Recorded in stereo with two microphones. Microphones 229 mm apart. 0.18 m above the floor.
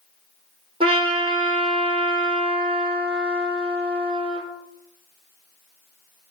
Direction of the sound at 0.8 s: 25° right (ahead or behind).